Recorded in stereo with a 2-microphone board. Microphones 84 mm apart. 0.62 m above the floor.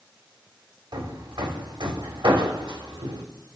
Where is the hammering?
70° right (ahead or behind), 2.0 m.